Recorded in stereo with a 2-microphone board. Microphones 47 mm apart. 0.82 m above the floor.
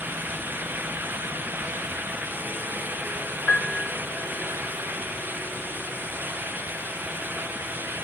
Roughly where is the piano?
Left.